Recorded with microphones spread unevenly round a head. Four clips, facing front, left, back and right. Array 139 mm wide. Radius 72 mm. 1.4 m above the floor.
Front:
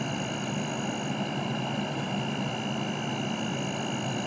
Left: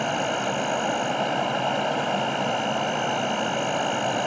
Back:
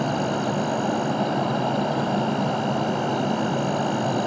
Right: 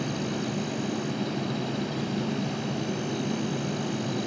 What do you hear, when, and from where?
0.0 s an insect: 135° left